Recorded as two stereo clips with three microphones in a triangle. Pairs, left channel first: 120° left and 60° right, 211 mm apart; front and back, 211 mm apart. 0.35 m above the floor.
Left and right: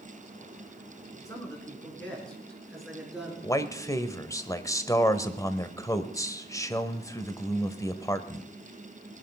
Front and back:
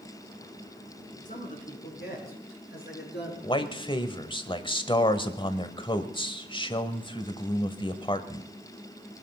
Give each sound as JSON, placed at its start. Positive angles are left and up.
{"t": 1.2, "sound": "a man speaking", "azimuth_deg": 45, "distance_m": 4.5}
{"t": 3.4, "sound": "a man speaking", "azimuth_deg": 55, "distance_m": 1.2}